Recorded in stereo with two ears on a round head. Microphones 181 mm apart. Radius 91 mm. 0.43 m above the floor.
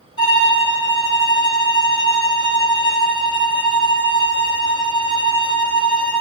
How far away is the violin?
About 0.8 m.